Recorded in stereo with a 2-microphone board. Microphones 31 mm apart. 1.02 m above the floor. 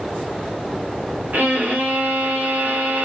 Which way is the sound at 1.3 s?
90° right.